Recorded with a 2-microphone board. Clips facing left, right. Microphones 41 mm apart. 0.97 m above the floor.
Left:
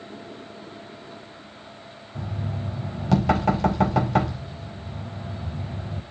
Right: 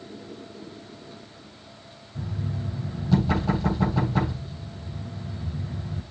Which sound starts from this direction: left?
Knocking, at 2.1 s.